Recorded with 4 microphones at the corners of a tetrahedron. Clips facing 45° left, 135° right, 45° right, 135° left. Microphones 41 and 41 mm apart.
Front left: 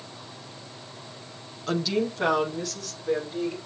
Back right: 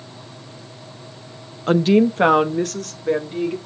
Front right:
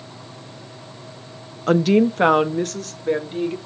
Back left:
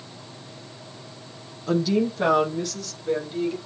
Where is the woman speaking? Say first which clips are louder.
Back right 11 dB, front right 6 dB; 80° right, 0.7 m; by 3.6 s 95° right, 2.0 m.